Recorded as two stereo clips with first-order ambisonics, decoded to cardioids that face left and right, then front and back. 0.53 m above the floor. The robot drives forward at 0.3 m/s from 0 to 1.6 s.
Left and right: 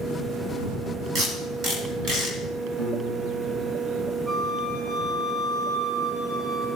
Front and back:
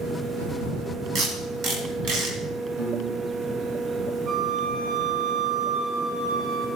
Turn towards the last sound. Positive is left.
turn(degrees=-155)